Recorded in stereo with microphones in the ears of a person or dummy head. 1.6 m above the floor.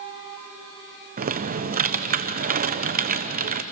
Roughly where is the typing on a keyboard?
Right.